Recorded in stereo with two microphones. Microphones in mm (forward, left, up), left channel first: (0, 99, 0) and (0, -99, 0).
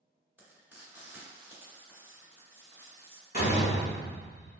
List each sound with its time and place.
0.4 s frying: 10° right (ahead or behind), 1.6 m
3.3 s a door slam: 50° left (ahead or behind), 1.4 m